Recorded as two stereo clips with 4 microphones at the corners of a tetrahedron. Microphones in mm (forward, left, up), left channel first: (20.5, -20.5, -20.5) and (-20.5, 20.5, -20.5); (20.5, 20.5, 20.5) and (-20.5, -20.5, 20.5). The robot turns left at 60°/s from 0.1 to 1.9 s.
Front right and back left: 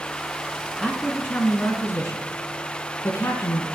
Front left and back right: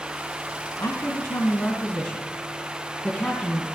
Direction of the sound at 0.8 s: 45° left.